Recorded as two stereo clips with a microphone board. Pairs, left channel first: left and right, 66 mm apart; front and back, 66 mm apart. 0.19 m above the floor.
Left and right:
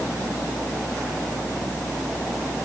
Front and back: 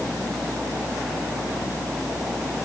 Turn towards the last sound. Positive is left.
No sound to turn to.